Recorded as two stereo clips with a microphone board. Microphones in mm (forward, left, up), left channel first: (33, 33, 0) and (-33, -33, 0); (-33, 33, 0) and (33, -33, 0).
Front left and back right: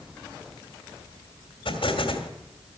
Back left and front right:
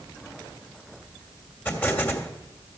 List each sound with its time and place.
1.6 s an explosion: 65° left, 2.5 m